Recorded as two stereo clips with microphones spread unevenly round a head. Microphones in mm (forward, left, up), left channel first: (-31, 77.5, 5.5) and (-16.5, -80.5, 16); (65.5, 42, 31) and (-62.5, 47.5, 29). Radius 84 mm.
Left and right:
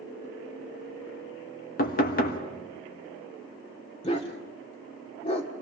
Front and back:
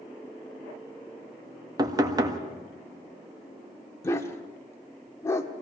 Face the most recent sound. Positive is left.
turn(degrees=55)